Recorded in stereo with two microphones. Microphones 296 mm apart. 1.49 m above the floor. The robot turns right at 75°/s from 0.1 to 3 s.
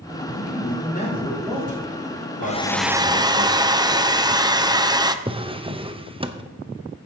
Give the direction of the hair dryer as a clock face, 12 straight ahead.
7 o'clock.